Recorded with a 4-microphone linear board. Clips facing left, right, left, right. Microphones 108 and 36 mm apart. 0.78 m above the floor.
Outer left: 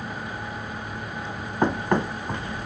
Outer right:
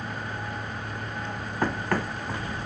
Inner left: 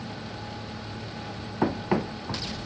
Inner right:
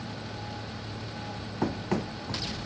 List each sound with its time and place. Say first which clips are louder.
1.6 s running footsteps: outer left 5 dB, inner left 4 dB; 20° left (ahead or behind)